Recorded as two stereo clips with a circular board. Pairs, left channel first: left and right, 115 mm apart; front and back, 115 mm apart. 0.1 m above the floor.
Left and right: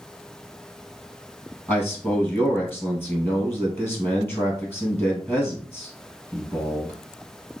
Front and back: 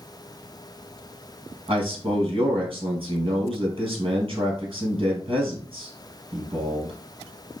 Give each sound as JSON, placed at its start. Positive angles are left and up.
{"t": 1.7, "sound": "a man speaking", "azimuth_deg": 155, "distance_m": 2.5}